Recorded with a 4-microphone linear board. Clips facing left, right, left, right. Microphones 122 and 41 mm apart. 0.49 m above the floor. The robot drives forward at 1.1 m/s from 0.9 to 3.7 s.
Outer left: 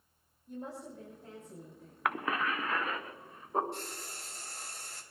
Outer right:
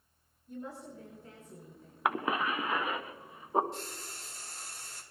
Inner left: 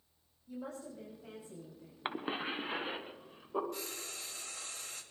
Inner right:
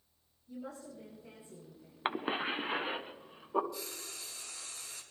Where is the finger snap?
No finger snap in this recording.